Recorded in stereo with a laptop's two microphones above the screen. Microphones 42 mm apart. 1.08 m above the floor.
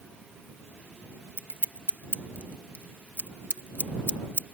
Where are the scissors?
45° right (ahead or behind).